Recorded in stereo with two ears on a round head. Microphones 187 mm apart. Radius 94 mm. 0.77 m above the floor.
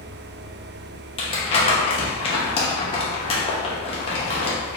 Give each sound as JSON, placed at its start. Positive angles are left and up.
{"t": 1.2, "sound": "crumpling", "side_deg": 30, "distance_m": 1.0}